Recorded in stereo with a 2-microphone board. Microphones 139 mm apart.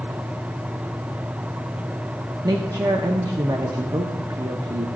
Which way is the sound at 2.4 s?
30° right (ahead or behind).